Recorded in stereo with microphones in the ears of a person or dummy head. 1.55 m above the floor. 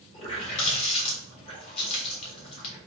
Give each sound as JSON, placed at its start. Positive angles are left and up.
{"t": 0.1, "sound": "a running tap", "side_deg": 35, "distance_m": 1.8}